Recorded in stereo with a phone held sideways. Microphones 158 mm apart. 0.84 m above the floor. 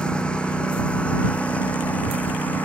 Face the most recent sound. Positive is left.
turn(degrees=10)  # may be behind; listen again after turning